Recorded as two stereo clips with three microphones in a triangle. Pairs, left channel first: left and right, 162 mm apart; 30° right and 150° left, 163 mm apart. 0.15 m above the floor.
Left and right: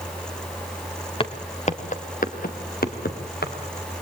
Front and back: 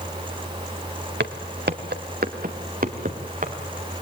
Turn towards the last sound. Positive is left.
turn(degrees=110)